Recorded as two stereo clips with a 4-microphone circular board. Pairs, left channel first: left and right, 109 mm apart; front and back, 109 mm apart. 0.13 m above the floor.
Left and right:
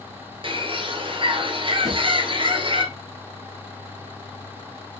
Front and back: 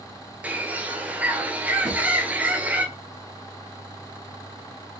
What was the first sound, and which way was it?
A bird, 105° right.